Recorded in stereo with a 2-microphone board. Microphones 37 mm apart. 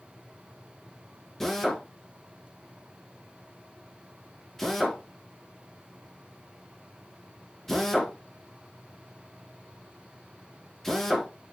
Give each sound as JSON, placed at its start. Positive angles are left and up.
{"t": 1.4, "sound": "a drill", "side_deg": 5, "distance_m": 2.5}